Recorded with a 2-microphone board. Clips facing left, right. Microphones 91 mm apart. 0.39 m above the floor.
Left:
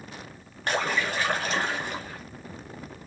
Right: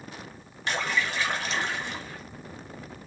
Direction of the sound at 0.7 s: 45° left (ahead or behind).